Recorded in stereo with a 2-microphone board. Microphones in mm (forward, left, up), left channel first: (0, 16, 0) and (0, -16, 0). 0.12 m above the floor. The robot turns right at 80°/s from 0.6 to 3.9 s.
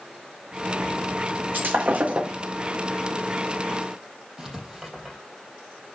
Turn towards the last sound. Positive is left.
turn(degrees=-10)  # may be behind; listen again after turning